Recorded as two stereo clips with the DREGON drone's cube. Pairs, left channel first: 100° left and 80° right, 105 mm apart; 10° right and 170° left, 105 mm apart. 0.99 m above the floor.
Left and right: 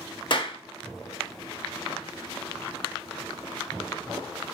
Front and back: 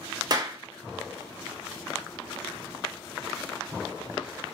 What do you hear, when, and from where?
0.3 s a clap: 125° left, 0.9 m